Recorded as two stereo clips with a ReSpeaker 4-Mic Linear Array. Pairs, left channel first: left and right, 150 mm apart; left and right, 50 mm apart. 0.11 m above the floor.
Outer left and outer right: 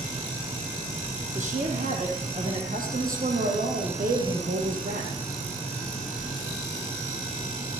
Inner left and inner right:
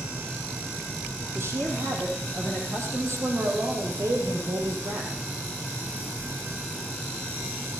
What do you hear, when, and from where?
1.4 s a woman speaking: 60° right (ahead or behind), 4.5 m; by 5.1 s 65° right (ahead or behind), 4 m